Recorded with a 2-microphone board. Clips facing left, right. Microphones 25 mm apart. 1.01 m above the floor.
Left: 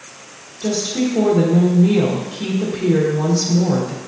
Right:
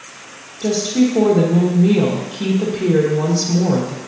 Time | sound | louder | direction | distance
0.6 | a woman speaking | right 4 dB | 25° right (ahead or behind) | 1.3 m